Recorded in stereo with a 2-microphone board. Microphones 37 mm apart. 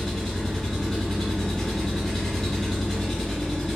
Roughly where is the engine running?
Centre.